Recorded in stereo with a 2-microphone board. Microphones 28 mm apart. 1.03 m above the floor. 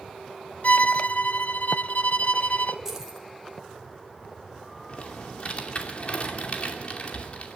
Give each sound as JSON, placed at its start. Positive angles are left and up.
{"t": 0.6, "sound": "a violin", "side_deg": 60, "distance_m": 0.5}
{"t": 2.9, "sound": "keys jangling", "side_deg": -15, "distance_m": 3.0}
{"t": 4.9, "sound": "typing on a keyboard", "side_deg": 45, "distance_m": 2.5}